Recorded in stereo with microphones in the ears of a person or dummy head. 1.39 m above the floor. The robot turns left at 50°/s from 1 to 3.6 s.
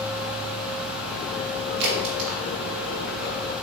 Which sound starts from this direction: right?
A crack, at 1.8 s.